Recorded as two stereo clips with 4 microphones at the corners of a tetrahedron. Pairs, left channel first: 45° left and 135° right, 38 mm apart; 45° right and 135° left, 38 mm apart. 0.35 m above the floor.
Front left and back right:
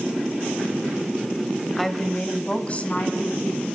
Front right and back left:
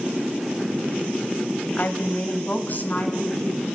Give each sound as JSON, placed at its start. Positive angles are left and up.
{"t": 1.8, "sound": "a woman speaking", "azimuth_deg": -40, "distance_m": 1.4}